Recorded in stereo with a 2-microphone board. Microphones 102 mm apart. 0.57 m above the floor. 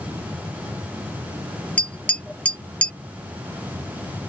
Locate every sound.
1.8 s tapping: 10° left (ahead or behind)